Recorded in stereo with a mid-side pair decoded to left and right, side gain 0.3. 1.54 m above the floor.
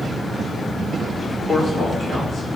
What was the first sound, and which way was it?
A man speaking, 70° left.